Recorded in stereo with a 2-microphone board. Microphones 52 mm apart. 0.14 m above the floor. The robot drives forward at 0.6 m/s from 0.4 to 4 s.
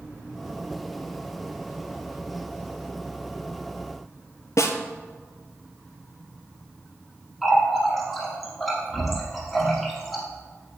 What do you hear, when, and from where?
4.6 s a snare drum: 70° left (ahead or behind), 0.8 m
7.4 s a running tap: centre (ahead or behind), 2.5 m